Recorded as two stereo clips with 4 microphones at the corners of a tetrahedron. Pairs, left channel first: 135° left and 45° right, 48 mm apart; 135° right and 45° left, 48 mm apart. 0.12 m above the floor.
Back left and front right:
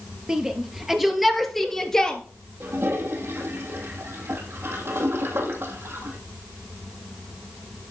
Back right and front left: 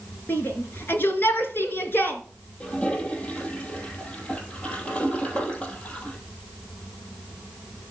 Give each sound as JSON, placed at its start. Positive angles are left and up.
{"t": 0.3, "sound": "a shout", "azimuth_deg": -115, "distance_m": 2.5}
{"t": 2.6, "sound": "a toilet flushing", "azimuth_deg": -70, "distance_m": 3.0}